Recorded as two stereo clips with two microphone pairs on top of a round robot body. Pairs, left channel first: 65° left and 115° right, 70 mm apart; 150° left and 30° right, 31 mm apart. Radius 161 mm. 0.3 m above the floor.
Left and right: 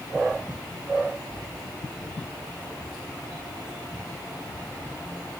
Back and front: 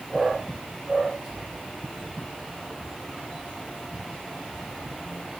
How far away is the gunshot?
I don't hear a gunshot.